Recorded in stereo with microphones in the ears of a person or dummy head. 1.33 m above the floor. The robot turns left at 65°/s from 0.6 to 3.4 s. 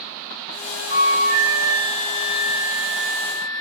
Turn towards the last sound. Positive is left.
turn(degrees=155)